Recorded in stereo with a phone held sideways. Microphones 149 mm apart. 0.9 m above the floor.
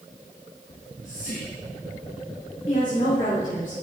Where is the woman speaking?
65° left (ahead or behind), 4 m.